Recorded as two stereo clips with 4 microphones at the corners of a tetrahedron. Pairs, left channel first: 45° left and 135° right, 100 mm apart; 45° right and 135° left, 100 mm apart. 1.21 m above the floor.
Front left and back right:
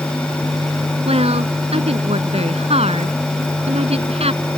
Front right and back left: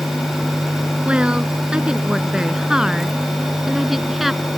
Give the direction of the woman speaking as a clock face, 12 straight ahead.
5 o'clock.